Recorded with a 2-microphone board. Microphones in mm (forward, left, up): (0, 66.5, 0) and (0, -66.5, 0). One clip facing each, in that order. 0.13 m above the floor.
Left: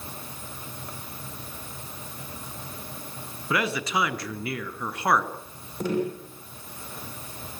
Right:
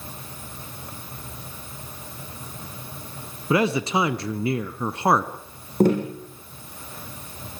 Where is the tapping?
50° right (ahead or behind), 7.5 m.